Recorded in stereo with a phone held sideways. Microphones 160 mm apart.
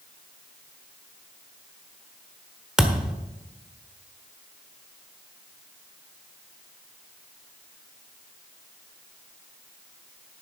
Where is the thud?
5° right (ahead or behind), 1.2 m.